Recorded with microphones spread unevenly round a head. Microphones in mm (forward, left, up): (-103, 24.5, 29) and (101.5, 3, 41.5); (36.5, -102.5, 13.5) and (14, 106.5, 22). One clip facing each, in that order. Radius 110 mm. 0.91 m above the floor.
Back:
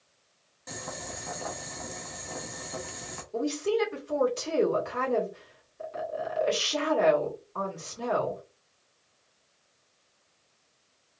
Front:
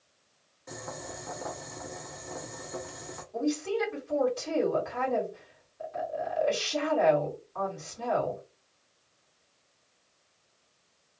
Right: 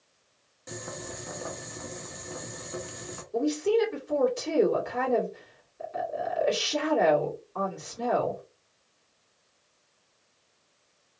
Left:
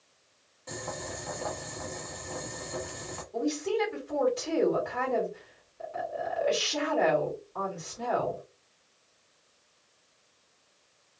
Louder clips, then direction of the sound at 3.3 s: Back 2 dB, right 5 dB; 140° right.